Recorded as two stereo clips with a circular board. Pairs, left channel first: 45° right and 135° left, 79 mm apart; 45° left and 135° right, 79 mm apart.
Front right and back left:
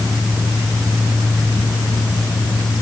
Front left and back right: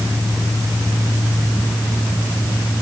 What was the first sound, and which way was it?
Only background noise.